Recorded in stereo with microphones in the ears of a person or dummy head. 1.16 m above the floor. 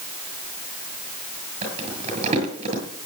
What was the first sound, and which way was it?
Crumpling, 30° right (ahead or behind).